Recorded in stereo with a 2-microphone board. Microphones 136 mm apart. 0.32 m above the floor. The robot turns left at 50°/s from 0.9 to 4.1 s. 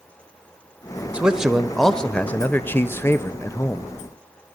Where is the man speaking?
10° right (ahead or behind), 0.9 m; by 3.9 s 15° left (ahead or behind), 0.9 m.